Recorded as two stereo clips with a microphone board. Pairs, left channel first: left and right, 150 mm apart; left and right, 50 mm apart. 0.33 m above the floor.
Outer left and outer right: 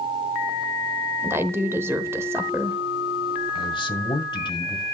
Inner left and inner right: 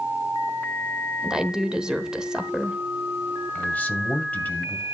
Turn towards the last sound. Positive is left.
turn(degrees=35)  # may be behind; listen again after turning